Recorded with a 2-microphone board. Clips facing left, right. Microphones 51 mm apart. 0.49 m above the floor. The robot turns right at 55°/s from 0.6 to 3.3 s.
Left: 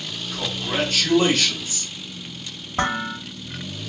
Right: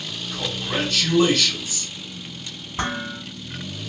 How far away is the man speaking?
About 2 m.